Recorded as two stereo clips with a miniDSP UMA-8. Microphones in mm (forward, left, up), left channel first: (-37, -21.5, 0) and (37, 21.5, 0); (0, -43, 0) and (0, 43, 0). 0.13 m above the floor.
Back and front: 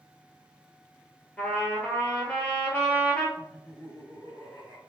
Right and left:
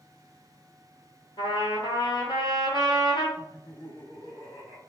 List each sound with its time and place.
1.4 s a trumpet: 80° right, 0.8 m
3.4 s laughter: 80° right, 1.9 m